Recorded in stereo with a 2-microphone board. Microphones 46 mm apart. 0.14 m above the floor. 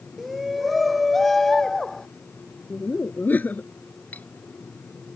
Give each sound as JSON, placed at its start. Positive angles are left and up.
{"t": 0.2, "sound": "a shout", "side_deg": -5}
{"t": 2.7, "sound": "laughter", "side_deg": 40}
{"t": 4.1, "sound": "cutlery clinking", "side_deg": 35}